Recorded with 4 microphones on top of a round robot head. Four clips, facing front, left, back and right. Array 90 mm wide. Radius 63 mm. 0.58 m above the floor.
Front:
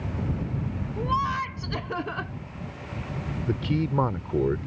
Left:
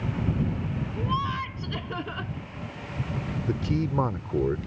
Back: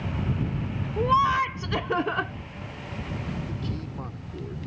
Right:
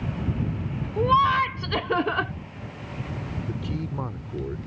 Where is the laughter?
115° right.